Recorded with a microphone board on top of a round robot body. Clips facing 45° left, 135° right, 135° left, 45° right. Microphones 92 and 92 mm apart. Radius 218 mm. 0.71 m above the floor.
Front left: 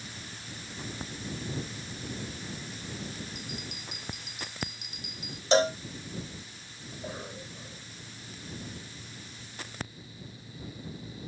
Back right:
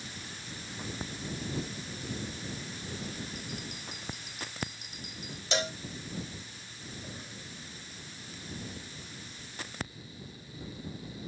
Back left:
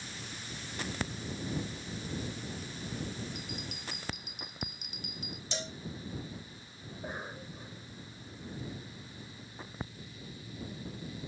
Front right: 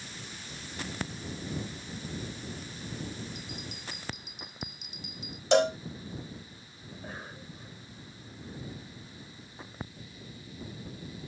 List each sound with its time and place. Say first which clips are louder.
3.4 s a bell: even, even; 170° left
5.5 s a cowbell: front left 10 dB, front right 20 dB; 10° right
6.9 s a cough: front left 7 dB, back left 2 dB; 60° left